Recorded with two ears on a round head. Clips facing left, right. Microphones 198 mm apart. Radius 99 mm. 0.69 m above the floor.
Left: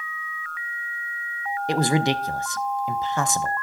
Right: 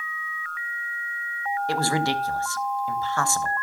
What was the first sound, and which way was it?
A man speaking, 15° left (ahead or behind).